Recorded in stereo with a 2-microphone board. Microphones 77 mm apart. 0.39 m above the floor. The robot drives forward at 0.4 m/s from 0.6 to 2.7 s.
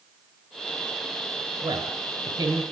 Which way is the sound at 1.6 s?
70° right (ahead or behind).